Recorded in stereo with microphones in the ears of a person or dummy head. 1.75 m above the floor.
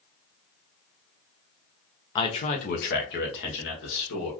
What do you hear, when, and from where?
2.1 s a man speaking: 20° left (ahead or behind), 0.7 m; by 4.3 s 70° left (ahead or behind), 1.7 m